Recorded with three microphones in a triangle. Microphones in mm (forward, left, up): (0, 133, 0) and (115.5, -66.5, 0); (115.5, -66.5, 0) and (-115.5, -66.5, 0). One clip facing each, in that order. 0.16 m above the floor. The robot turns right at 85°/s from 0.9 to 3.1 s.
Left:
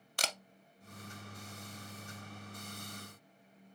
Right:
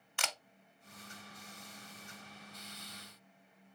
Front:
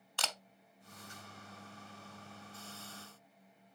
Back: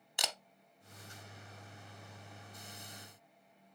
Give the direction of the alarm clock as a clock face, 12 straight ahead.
I don't hear an alarm clock.